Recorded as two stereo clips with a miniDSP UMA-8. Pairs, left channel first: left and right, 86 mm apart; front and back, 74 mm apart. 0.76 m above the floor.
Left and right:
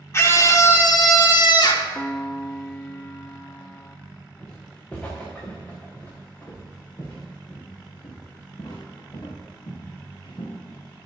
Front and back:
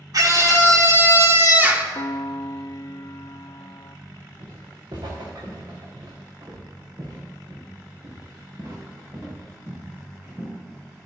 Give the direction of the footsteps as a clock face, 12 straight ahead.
6 o'clock.